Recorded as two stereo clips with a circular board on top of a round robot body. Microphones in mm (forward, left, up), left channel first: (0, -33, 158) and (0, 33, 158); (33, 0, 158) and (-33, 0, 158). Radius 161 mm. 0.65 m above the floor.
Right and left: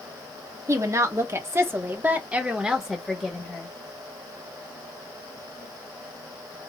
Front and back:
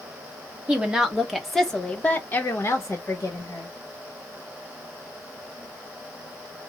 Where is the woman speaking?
110° left, 1.4 m; by 3.7 s 15° right, 1.5 m.